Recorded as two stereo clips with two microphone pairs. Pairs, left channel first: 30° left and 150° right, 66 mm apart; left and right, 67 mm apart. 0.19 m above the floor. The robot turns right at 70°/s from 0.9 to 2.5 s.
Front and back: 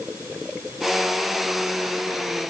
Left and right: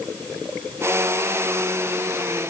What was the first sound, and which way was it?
Only background noise.